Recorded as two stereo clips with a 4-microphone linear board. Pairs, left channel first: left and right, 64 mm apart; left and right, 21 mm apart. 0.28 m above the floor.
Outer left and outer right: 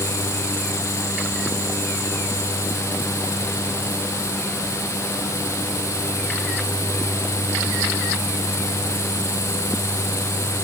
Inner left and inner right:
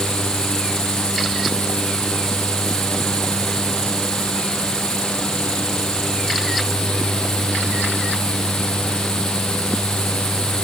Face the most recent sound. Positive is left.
No sound to turn to.